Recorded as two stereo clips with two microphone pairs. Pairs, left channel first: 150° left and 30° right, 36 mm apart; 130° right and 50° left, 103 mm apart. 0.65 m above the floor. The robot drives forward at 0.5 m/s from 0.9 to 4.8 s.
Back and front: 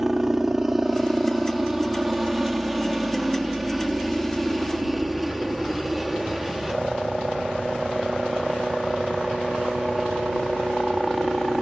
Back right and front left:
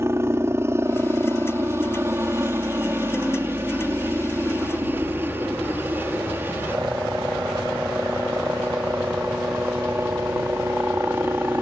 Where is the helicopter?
35° left; by 11.6 s 50° left.